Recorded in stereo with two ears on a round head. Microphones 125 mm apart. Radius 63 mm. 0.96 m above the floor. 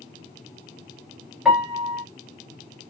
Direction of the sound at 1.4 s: 5° right (ahead or behind).